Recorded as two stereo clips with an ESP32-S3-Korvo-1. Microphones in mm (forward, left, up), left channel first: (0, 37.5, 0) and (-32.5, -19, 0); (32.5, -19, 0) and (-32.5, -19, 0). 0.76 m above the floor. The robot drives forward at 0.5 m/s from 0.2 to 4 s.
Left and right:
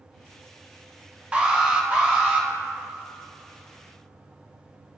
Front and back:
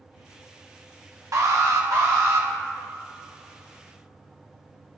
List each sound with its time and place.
1.3 s an alarm: 175° left, 1.1 m